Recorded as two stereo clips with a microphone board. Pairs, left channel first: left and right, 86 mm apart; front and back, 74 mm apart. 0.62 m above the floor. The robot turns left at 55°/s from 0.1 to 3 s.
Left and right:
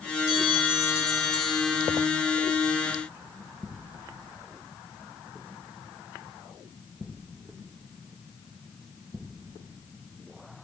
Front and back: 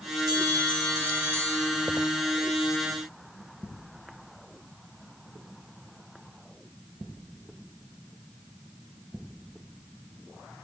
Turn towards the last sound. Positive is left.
turn(degrees=40)